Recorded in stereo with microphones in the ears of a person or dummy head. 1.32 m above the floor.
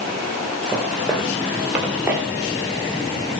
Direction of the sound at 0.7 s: Centre (ahead or behind).